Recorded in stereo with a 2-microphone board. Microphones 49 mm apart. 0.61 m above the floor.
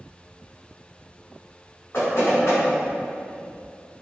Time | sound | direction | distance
1.9 | knocking | 55° left (ahead or behind) | 1.7 m